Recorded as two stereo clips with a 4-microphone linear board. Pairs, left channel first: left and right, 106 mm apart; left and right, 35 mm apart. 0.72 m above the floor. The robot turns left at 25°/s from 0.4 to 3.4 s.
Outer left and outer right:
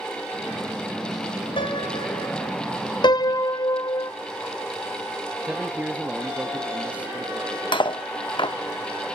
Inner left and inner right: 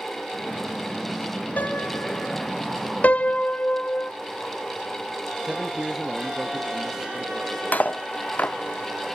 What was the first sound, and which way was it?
A piano, 55° left (ahead or behind).